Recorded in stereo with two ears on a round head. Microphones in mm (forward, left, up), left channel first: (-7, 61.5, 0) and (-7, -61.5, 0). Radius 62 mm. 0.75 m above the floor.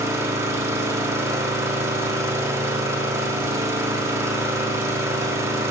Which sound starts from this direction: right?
An engine running, at 0.0 s.